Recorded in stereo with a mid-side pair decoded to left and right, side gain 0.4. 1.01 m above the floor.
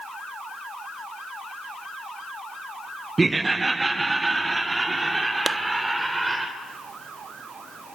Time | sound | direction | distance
3.2 | laughter | 25° right | 0.6 m
5.5 | a clap | 35° right | 0.9 m